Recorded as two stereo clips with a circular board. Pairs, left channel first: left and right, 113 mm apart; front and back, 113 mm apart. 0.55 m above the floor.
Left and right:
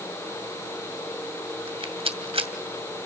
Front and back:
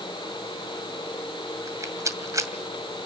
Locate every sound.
1.7 s a rattle: 120° right, 2 m